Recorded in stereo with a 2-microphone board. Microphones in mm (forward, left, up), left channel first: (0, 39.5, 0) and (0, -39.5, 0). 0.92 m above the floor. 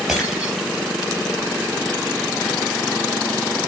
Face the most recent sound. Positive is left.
turn(degrees=-10)  # may be behind; listen again after turning